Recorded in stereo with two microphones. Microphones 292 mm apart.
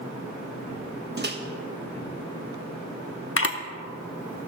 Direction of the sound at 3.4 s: 50° left (ahead or behind).